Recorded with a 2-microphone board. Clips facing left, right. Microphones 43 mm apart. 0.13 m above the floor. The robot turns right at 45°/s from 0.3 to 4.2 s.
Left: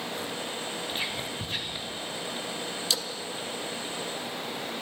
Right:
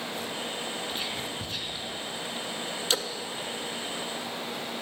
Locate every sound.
0.9 s whispering: 10° left (ahead or behind), 1.3 m; by 2.0 s 25° left (ahead or behind), 1.3 m
2.9 s a splash: 40° right (ahead or behind), 0.6 m; by 3.1 s 35° right (ahead or behind), 0.6 m